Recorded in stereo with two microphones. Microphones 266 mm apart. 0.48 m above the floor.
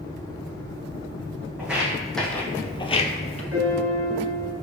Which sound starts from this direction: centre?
Footsteps, at 1.6 s.